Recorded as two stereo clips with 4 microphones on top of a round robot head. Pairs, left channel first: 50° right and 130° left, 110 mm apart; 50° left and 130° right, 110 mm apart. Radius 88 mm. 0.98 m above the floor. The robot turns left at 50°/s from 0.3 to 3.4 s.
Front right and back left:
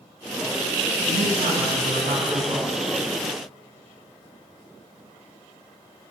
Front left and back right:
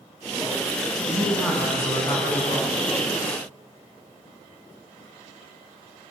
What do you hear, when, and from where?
1.1 s a man speaking: 155° left, 7.5 m; by 2.8 s 70° left, 7.5 m